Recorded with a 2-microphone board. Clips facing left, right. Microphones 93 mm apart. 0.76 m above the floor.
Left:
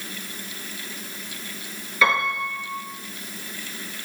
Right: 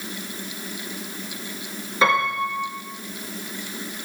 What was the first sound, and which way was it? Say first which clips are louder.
A piano: right 2 dB; 30° right (ahead or behind).